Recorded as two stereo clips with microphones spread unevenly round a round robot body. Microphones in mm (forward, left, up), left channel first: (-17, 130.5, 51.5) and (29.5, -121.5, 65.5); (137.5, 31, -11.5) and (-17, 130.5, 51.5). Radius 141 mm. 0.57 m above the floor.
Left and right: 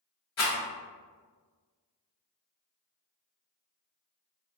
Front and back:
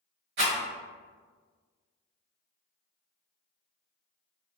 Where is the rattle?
140° left, 1.4 m.